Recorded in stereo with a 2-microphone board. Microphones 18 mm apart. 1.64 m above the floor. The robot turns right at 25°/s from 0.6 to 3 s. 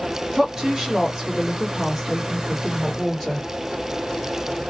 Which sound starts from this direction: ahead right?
A woman speaking, at 0.3 s.